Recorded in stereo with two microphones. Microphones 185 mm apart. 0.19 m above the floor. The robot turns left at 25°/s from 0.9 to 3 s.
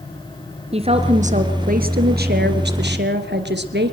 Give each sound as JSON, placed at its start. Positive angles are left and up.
{"t": 0.7, "sound": "a woman speaking", "azimuth_deg": -35, "distance_m": 2.5}